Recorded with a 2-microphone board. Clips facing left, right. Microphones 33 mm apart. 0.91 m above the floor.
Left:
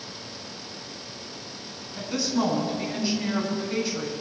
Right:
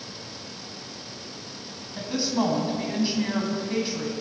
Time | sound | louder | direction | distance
2.0 | a woman speaking | even | 20° right (ahead or behind) | 8.5 m